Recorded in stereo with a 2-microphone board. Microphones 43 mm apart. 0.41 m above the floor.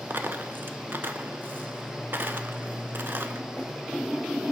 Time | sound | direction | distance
0.1 | a dropped coin | 55° right (ahead or behind) | 0.5 m